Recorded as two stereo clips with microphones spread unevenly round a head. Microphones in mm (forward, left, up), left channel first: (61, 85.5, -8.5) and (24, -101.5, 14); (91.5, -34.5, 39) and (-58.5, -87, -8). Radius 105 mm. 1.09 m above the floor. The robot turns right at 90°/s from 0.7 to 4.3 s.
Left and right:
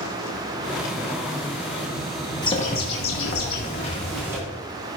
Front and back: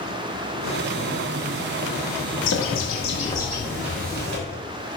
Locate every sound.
2.4 s a bird: 10° left, 2.5 m; by 4.4 s straight behind, 2.5 m